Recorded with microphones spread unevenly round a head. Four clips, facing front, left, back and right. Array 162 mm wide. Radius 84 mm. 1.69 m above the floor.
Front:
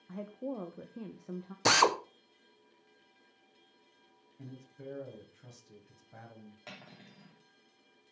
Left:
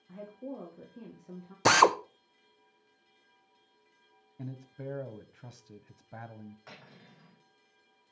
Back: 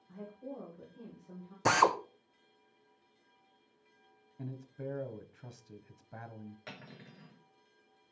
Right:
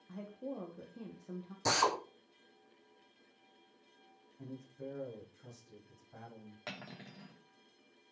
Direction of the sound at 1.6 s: 65° left.